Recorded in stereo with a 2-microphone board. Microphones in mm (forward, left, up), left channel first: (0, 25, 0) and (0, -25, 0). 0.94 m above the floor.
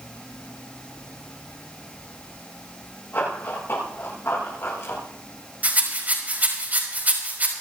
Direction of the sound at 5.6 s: 35° right (ahead or behind).